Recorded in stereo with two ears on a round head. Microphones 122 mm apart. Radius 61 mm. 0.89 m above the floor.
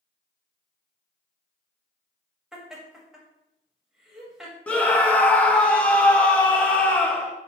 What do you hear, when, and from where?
2.5 s laughter: 5° right (ahead or behind), 1.1 m
4.7 s a scream: 10° left (ahead or behind), 0.6 m